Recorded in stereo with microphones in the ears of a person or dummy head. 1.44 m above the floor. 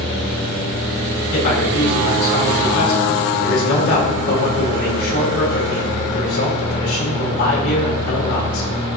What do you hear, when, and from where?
1.3 s a man speaking: 70° left (ahead or behind), 5 m